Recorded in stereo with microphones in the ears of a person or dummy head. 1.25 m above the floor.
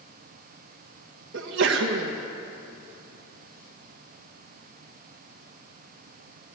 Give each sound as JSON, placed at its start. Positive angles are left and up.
{"t": 1.3, "sound": "a sneeze", "side_deg": -60, "distance_m": 0.8}